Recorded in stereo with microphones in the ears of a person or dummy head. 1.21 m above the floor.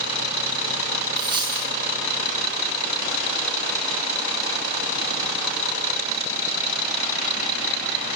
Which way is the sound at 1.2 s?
25° right (ahead or behind).